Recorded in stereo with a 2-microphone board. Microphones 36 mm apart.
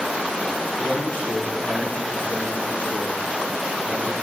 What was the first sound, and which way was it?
A man speaking, 55° left (ahead or behind).